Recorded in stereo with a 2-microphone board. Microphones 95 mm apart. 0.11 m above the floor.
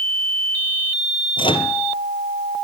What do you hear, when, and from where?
1.4 s a microwave: 60° left (ahead or behind), 2.0 m